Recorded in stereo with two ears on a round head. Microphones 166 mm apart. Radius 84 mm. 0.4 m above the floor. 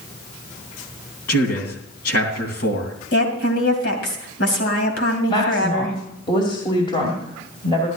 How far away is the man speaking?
About 3 m.